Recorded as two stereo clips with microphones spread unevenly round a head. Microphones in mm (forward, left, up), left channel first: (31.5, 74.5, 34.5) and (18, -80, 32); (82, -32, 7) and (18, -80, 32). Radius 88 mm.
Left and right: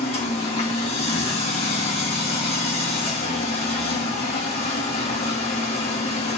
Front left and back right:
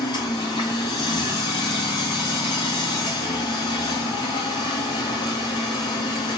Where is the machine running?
35° left, 1.7 m.